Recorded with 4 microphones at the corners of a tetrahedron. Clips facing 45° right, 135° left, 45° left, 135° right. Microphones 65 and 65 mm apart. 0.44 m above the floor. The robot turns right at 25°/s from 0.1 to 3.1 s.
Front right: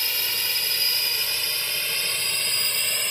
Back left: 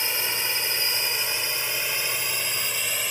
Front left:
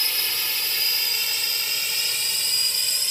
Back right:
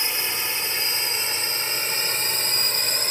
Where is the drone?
Straight behind; by 3.1 s 140° right.